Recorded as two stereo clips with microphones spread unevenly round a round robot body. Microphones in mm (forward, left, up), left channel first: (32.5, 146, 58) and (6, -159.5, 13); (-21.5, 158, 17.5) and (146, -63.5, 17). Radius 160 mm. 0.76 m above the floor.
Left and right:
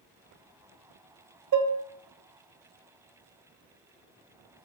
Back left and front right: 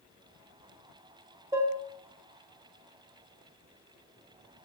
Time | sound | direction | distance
1.5 | dishes clattering | 130° right | 0.7 m